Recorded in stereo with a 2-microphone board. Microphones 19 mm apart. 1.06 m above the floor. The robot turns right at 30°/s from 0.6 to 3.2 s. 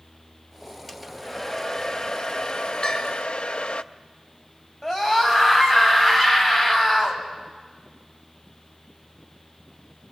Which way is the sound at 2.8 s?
70° left (ahead or behind).